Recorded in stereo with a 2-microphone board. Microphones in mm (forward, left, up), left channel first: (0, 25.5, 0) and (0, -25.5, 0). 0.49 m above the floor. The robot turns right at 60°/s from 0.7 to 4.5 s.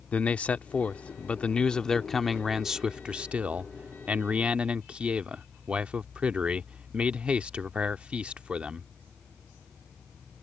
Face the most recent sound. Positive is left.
turn(degrees=-20)  # may be behind; listen again after turning